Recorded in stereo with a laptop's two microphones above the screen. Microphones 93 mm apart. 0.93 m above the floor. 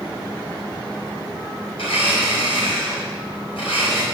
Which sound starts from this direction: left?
A blender, at 1.8 s.